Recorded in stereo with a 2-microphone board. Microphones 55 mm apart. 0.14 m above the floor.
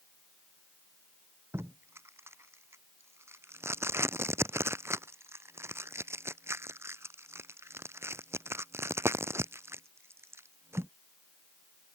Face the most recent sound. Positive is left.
turn(degrees=-55)  # may be behind; listen again after turning